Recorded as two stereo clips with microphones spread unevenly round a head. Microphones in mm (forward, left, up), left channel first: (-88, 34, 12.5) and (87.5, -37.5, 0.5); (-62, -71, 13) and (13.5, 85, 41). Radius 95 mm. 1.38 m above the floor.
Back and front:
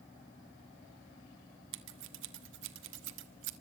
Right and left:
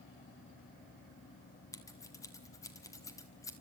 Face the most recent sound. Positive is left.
turn(degrees=-40)